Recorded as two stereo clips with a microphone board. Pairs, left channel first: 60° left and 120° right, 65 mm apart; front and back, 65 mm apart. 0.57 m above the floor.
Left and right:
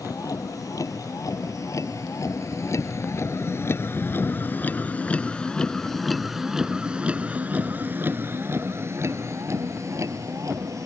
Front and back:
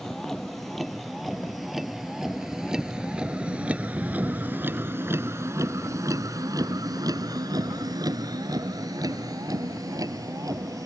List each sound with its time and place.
0.0 s a vehicle: 85° left; by 10.9 s 155° right